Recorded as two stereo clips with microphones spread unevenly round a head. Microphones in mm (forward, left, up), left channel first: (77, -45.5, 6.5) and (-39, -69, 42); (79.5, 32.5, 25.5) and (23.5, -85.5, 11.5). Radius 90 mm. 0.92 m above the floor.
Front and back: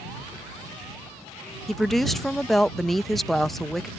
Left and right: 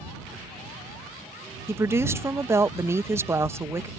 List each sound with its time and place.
1.7 s a woman speaking: 60° right